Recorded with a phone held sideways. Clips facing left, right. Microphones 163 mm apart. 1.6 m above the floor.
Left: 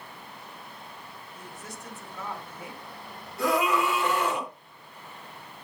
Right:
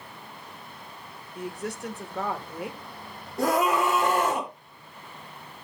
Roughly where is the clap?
No clap in this recording.